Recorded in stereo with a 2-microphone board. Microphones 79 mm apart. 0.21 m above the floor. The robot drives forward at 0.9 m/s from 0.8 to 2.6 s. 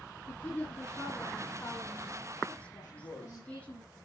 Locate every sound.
0.3 s a woman speaking: 25° left (ahead or behind), 7 m; by 3.8 s 20° left (ahead or behind), 8 m
2.8 s a man speaking: 40° left (ahead or behind), 8 m